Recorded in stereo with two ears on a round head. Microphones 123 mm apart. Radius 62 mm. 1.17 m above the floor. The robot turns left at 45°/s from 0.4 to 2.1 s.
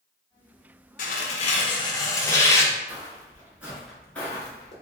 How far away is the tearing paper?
About 0.5 m.